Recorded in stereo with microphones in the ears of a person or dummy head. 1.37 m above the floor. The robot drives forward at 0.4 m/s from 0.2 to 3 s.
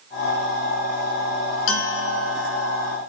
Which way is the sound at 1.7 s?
80° left.